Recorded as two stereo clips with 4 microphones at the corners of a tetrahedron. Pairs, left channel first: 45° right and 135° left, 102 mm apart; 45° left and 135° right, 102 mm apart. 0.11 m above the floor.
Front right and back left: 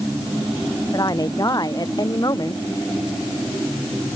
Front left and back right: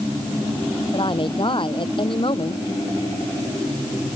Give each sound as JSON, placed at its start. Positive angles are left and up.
{"t": 0.9, "sound": "a woman speaking", "azimuth_deg": 10}